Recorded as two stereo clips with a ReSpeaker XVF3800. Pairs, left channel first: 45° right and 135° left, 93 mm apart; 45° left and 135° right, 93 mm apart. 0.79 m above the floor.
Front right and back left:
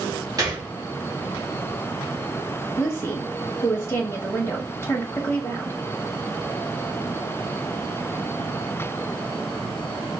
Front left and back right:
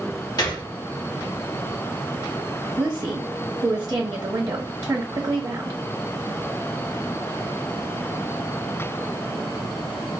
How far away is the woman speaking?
About 1.0 m.